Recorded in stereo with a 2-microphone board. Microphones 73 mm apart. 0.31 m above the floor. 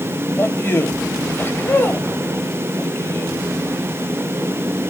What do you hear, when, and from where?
0.4 s a man speaking: 30° left (ahead or behind), 1.2 m